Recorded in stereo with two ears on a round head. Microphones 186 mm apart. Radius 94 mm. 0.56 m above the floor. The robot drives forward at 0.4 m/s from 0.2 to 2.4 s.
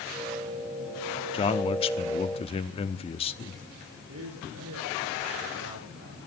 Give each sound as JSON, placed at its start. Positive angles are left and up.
{"t": 1.3, "sound": "a man speaking", "side_deg": 25, "distance_m": 1.0}
{"t": 4.1, "sound": "a man speaking", "side_deg": -85, "distance_m": 9.5}